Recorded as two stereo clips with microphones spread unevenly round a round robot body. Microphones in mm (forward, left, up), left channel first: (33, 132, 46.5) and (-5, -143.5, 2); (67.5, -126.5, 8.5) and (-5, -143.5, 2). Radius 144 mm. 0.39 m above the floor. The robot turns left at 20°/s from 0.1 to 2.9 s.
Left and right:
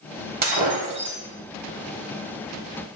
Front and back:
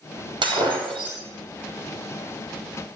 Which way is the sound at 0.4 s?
160° right.